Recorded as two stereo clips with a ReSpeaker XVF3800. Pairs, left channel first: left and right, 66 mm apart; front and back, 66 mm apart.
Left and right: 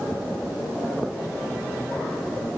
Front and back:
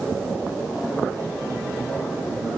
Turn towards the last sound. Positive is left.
No sound to turn to.